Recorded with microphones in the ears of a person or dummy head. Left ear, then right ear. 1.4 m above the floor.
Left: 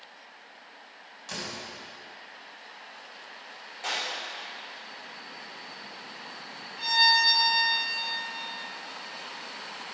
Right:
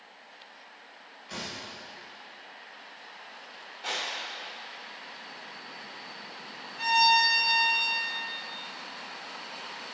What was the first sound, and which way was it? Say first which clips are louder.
A door slam: left 2 dB; 75° left (ahead or behind).